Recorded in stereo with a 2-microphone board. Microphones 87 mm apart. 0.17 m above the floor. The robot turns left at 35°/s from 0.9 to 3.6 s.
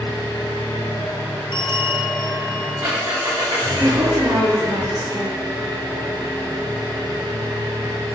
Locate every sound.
0.0 s an engine running: 40° left, 6 m; by 8.2 s 55° right, 6 m
1.5 s a bell: 65° left, 5 m; by 3.5 s 5° right, 5 m
3.8 s a woman speaking: 45° right (ahead or behind), 4.5 m